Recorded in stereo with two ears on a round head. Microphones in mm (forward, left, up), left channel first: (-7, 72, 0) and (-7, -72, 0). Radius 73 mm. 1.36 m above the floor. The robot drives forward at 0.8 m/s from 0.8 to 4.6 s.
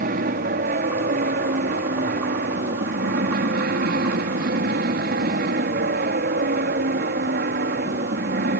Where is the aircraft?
50° right (ahead or behind); by 8.6 s 55° right (ahead or behind).